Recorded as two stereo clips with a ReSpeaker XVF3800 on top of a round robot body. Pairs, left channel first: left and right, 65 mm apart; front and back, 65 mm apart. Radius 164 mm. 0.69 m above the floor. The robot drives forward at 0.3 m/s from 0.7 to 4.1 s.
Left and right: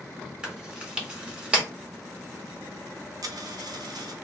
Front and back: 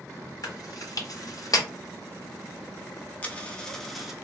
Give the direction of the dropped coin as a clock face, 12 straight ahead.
2 o'clock.